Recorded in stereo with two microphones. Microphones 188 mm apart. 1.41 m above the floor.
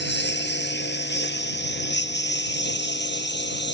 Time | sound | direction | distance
0.0 | a lawn mower | 70° left (ahead or behind) | ?